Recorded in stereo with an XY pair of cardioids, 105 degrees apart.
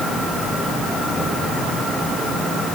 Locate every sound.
Only background noise.